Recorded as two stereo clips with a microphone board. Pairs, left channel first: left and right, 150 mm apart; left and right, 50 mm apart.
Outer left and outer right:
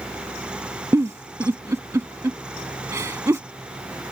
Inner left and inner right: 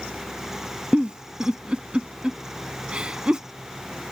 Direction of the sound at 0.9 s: 20° right (ahead or behind).